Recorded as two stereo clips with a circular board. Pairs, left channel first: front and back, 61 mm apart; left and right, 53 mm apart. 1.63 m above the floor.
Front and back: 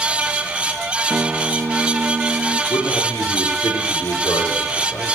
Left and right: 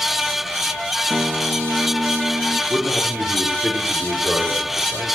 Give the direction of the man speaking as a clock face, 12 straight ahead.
1 o'clock.